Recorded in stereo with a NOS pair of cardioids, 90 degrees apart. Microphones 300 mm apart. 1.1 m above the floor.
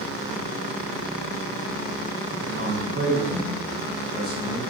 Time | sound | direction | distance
2.3 | a man speaking | 40° right | 1.0 m